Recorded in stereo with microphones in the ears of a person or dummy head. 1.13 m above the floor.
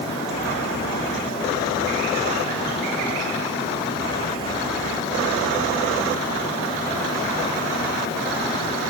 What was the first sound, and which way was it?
Only background noise.